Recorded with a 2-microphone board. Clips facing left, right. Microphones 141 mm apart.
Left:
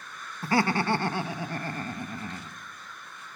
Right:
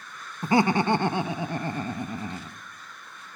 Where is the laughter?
20° right (ahead or behind), 0.9 m.